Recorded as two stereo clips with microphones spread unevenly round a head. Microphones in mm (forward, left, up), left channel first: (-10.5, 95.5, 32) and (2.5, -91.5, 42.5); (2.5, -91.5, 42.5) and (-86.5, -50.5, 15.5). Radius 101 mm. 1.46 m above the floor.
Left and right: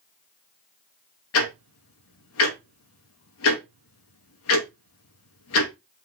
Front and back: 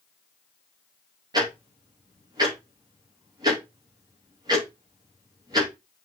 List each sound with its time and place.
1.3 s ticking: 90° left, 2.5 m